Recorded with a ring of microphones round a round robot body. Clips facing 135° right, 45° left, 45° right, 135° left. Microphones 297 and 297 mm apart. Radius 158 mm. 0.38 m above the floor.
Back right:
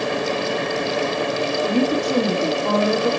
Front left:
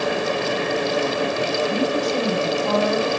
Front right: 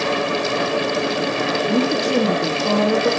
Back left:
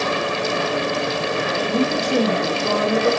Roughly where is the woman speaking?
Right.